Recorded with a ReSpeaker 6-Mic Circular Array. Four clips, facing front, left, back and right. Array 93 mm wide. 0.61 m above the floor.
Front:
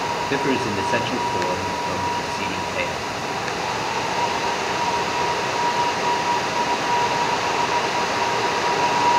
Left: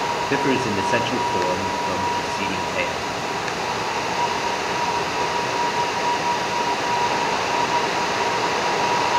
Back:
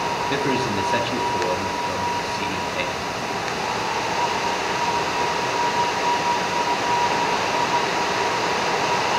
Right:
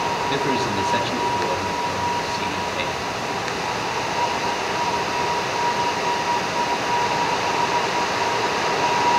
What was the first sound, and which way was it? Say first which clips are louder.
A man speaking: left 1 dB, front 2 dB; 70° left.